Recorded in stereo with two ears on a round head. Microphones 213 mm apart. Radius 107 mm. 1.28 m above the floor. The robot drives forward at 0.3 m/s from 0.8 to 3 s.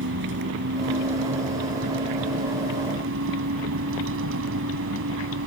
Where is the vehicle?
50° right (ahead or behind); by 5.5 s 55° right (ahead or behind).